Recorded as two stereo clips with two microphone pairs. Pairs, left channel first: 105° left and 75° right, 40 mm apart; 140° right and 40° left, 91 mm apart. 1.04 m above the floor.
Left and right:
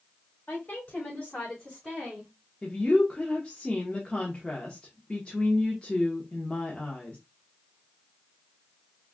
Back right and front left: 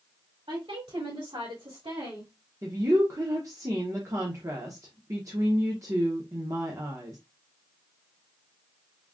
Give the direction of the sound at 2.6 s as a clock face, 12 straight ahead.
10 o'clock.